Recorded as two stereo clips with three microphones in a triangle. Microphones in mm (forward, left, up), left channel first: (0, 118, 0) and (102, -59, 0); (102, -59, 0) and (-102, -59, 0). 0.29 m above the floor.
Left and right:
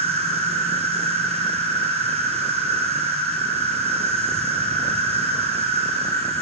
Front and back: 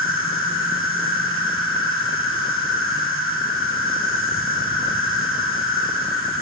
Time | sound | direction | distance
0.0 | an insect | straight ahead | 6 m